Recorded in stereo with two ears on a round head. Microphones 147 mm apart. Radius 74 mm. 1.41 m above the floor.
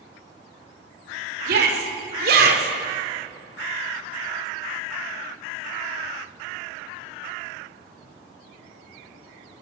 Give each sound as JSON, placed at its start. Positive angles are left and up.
{"t": 1.5, "sound": "a shout", "side_deg": -65, "distance_m": 5.5}